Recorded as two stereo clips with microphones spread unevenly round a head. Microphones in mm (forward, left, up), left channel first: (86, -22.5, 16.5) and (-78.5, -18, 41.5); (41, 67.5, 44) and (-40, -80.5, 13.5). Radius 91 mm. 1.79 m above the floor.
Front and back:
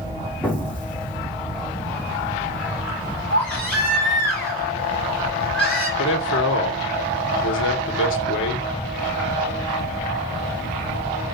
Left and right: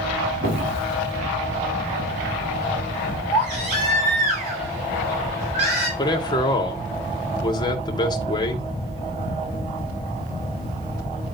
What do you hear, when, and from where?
0.4 s an explosion: 90° right, 3 m
3.3 s a baby crying: 85° right, 6 m
6.0 s a man speaking: 5° right, 1.9 m